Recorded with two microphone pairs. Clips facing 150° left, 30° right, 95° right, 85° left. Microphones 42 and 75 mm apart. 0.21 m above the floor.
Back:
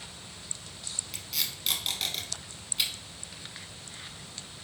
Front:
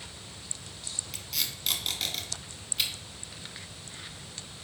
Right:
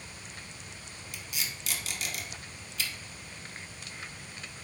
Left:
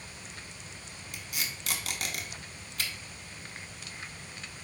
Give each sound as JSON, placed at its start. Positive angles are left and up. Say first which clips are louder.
{"t": 1.1, "sound": "tape being pulled", "louder": "even, left 1 dB", "azimuth_deg": 65, "distance_m": 0.8}